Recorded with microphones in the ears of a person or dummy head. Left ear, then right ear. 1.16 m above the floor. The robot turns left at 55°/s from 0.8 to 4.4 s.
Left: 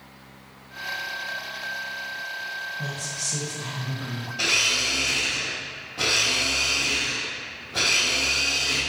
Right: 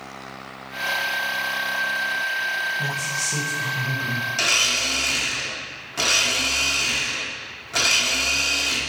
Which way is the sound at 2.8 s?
20° right.